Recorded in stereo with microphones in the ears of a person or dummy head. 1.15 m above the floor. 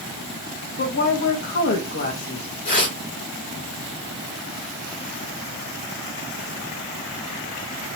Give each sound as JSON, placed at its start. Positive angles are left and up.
{"t": 0.8, "sound": "a woman speaking", "side_deg": 45, "distance_m": 1.9}
{"t": 2.6, "sound": "tearing paper", "side_deg": 40, "distance_m": 2.5}